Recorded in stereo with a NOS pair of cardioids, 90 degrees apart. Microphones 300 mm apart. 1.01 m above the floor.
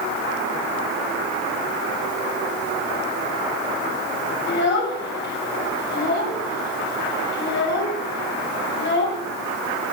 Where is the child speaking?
40° left, 3 m.